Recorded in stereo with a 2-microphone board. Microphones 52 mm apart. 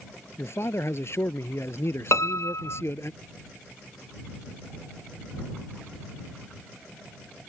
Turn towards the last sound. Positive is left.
turn(degrees=70)  # may be behind; listen again after turning